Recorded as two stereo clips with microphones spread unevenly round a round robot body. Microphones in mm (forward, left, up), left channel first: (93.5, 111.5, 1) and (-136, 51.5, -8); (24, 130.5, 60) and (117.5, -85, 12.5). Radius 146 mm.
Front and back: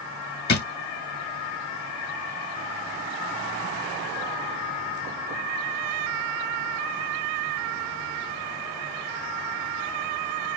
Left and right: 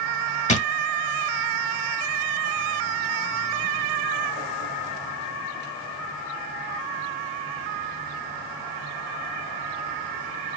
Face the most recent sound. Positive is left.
turn(degrees=50)